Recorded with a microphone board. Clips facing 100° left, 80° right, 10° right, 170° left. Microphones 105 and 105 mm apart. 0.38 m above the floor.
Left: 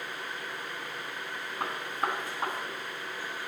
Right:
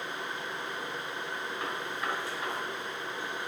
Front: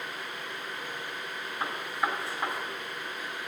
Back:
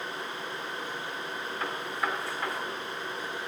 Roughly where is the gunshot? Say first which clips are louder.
Left 5 dB, front 2 dB; ahead left.